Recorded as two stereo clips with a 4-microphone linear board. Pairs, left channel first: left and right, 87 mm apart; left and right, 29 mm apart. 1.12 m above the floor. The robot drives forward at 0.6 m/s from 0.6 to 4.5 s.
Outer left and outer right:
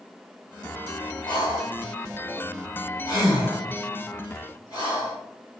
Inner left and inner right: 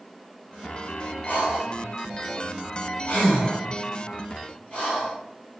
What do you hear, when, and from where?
1.3 s breathing: 65° left (ahead or behind), 1.8 m; by 5.2 s 40° left (ahead or behind), 2.5 m